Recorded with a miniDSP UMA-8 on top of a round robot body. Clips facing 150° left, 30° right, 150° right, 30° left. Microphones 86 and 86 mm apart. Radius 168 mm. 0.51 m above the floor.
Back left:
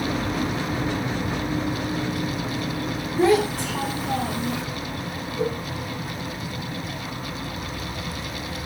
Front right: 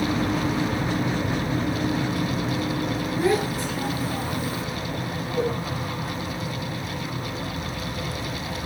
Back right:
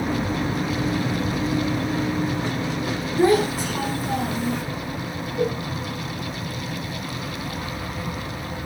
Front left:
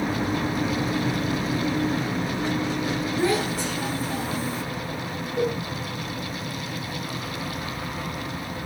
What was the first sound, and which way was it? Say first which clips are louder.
A child speaking: back left 5 dB, back right 8 dB; 165° left.